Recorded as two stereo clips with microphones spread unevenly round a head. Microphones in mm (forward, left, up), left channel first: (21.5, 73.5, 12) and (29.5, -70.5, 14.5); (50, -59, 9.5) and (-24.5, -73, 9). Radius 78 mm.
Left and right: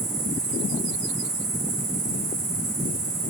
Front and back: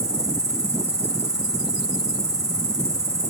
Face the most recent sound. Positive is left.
turn(degrees=-130)